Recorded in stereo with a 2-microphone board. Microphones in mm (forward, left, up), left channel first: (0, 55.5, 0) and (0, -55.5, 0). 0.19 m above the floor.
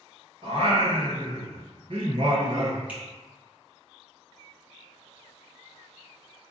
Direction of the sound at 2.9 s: 10° right (ahead or behind).